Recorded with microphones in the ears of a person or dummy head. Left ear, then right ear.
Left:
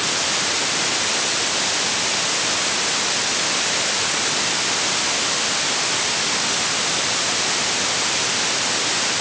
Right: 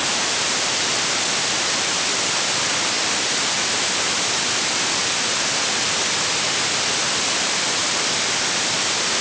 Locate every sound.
Only background noise.